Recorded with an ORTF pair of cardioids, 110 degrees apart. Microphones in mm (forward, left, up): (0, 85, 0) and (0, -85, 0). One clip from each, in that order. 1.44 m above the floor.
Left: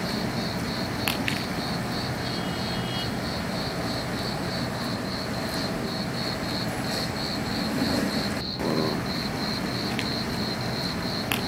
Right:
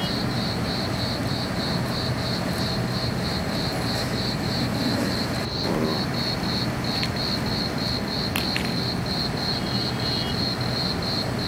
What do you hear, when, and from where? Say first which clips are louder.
0.0 s an insect: right 3 dB; 25° right